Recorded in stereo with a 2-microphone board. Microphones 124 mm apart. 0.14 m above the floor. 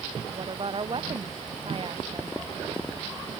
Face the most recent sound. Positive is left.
turn(degrees=-45)  # may be behind; listen again after turning